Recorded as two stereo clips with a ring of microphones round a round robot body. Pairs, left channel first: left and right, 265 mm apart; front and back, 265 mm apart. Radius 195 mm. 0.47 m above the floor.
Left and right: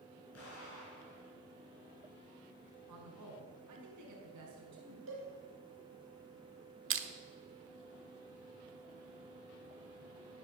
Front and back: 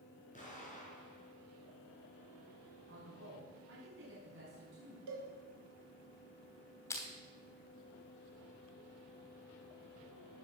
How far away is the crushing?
About 1.3 m.